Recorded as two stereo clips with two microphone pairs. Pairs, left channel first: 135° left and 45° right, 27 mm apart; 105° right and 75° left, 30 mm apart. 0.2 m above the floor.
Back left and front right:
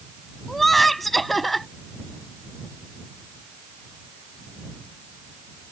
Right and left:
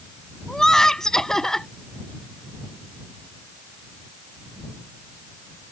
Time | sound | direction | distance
0.5 | laughter | 145° right | ?